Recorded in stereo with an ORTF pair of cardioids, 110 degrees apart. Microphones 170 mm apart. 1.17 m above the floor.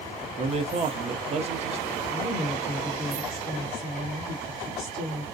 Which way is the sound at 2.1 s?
5° right.